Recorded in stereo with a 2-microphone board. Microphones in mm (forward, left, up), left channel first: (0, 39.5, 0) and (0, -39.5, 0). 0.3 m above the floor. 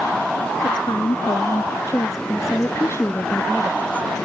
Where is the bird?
No bird in this recording.